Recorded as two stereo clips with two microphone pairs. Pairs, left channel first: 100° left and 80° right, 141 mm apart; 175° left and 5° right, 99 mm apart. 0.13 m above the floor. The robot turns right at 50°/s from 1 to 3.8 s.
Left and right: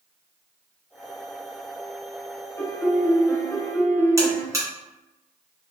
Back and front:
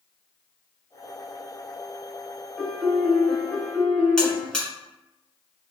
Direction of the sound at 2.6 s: 75° left.